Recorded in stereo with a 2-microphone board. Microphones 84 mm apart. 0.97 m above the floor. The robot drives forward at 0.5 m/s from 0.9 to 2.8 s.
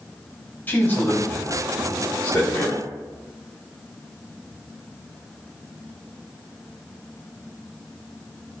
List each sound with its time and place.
0.7 s a man speaking: 20° left (ahead or behind), 2.5 m; by 2.9 s 15° left (ahead or behind), 3.5 m